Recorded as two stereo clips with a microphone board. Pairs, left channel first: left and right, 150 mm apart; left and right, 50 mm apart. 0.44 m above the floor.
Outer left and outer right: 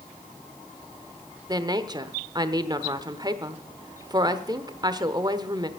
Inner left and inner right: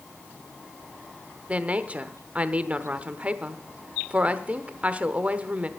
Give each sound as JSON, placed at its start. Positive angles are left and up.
{"t": 1.5, "sound": "a woman speaking", "side_deg": -30, "distance_m": 0.9}